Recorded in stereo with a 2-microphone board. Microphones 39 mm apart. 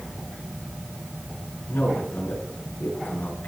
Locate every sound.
1.7 s a man speaking: 75° left (ahead or behind), 7.5 m